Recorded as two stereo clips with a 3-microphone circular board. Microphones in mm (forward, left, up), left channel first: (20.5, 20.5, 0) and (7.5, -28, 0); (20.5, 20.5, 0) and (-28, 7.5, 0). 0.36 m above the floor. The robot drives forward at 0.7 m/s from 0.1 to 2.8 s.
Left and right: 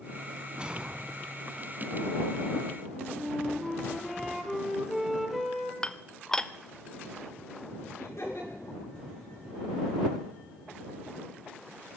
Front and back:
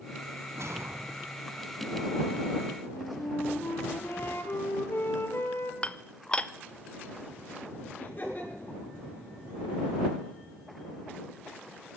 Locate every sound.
0.5 s a whoosh: 175° right, 1.2 m
2.9 s a flute: 15° right, 1.8 m
5.8 s dishes clattering: 25° left, 0.6 m
8.0 s laughter: 60° left, 6 m